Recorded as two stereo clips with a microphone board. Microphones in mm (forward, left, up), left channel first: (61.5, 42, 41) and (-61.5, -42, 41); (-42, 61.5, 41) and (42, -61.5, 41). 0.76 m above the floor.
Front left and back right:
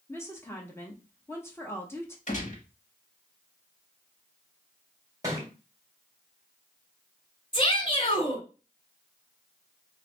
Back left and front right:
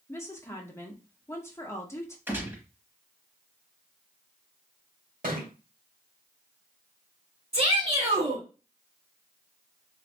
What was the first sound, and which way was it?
A woman speaking, 80° left.